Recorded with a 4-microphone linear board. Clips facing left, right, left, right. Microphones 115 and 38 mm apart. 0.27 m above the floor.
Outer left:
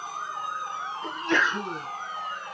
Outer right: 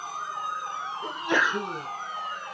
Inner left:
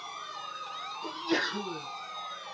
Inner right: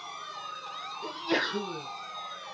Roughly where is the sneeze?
Centre.